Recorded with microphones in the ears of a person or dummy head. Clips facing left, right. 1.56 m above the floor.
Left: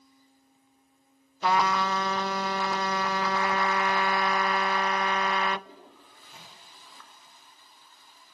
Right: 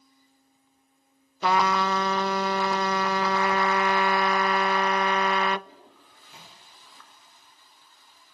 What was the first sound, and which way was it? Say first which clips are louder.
A trumpet: right 2 dB; 60° right (ahead or behind).